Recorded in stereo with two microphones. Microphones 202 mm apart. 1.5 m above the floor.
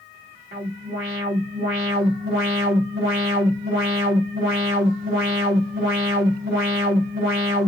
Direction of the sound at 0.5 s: 55° right (ahead or behind).